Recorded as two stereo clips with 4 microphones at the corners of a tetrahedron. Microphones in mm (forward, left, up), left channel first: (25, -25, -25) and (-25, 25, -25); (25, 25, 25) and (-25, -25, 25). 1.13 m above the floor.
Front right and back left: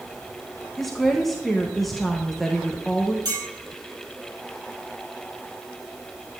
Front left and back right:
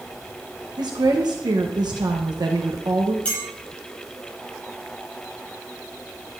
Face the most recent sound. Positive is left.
turn(degrees=115)